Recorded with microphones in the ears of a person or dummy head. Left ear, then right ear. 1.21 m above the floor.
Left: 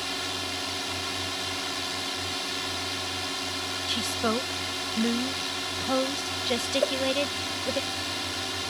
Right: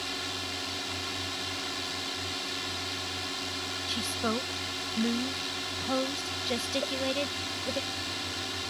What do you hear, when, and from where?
0.0 s a drone: 10° left (ahead or behind)
3.9 s a woman speaking: 10° left (ahead or behind)
6.8 s a whoosh: 50° left (ahead or behind)